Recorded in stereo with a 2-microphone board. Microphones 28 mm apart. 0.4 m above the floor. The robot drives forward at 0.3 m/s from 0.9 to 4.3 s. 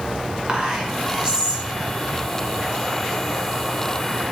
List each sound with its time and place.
0.5 s whispering: 35° right (ahead or behind), 1.5 m